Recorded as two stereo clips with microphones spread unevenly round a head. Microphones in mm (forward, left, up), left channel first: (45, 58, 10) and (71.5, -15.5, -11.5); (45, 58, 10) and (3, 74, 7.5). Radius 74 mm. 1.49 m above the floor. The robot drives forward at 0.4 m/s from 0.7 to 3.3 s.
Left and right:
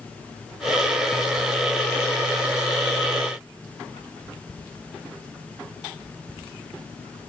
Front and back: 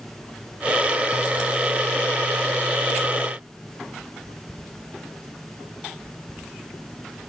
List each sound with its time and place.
Only background noise.